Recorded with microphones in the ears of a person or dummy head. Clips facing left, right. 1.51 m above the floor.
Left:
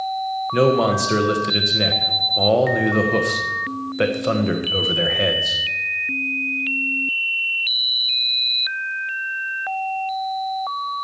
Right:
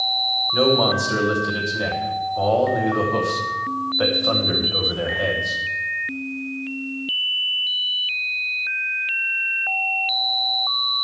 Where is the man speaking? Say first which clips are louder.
Left 2 dB; 35° left (ahead or behind), 1.3 m.